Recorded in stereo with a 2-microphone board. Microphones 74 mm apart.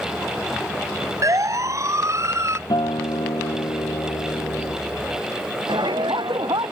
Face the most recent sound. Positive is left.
turn(degrees=-80)